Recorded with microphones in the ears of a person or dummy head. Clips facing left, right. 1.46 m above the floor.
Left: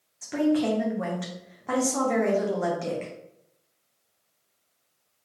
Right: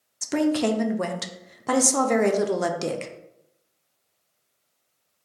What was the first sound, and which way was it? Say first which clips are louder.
A woman speaking: right 1 dB; 50° right (ahead or behind).